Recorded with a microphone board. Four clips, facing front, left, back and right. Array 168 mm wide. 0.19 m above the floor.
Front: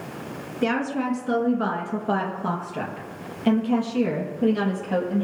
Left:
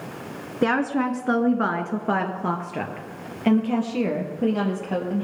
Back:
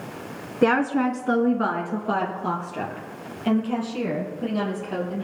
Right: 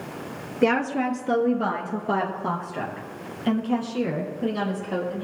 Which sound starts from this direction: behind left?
A woman speaking, at 0.6 s.